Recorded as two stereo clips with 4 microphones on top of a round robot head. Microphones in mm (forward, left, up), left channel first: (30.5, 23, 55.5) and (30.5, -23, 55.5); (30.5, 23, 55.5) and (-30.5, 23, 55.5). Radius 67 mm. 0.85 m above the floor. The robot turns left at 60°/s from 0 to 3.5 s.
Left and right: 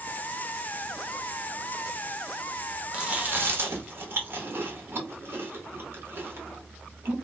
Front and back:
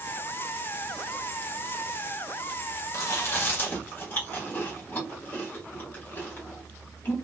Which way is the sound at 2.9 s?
25° right.